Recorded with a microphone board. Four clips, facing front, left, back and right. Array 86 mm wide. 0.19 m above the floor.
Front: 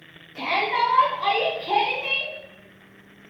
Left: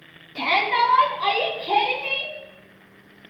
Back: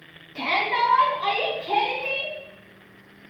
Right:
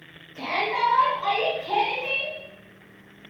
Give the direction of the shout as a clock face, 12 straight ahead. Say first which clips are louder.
Left 5 dB, even; 9 o'clock.